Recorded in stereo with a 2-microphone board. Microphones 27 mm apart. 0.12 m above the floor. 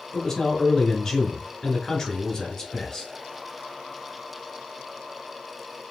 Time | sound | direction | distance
0.1 | a man speaking | 20° left (ahead or behind) | 1.3 m